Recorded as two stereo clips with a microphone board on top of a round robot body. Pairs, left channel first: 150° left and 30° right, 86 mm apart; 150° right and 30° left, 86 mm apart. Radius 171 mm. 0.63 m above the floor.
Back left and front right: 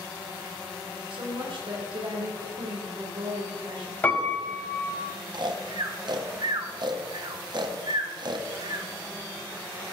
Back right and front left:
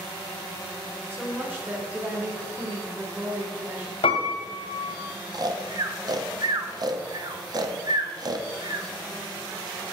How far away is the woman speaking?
About 2.5 m.